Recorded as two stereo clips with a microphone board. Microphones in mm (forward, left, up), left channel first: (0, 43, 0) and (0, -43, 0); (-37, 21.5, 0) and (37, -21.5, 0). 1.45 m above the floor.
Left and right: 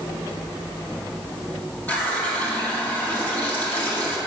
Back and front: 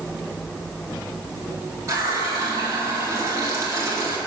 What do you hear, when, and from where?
1.9 s a running tap: 20° left, 1.8 m